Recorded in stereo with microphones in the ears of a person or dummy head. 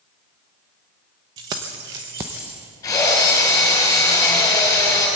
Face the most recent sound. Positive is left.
turn(degrees=20)  # may be behind; listen again after turning